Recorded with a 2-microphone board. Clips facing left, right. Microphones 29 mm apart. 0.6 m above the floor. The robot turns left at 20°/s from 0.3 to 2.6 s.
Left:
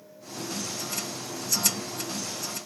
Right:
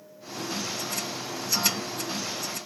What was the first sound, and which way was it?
Only background noise.